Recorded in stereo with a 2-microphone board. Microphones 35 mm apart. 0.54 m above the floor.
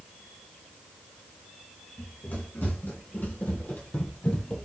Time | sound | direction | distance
2.0 | running footsteps | 75° left (ahead or behind) | 2.0 m